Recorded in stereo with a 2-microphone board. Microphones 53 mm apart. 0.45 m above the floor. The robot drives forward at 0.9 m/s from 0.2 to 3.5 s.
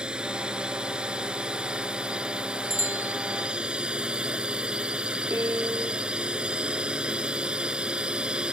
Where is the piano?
65° right (ahead or behind).